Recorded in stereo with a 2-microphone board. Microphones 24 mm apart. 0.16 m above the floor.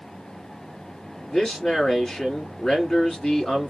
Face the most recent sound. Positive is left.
turn(degrees=25)  # may be behind; listen again after turning